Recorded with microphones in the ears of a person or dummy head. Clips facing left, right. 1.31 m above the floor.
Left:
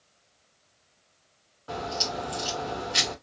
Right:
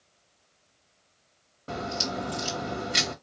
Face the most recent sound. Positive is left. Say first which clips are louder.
# even
turn(degrees=-35)  # may be behind; listen again after turning